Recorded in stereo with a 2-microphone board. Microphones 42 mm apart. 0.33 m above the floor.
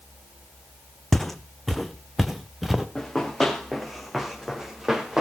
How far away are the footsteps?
About 0.9 m.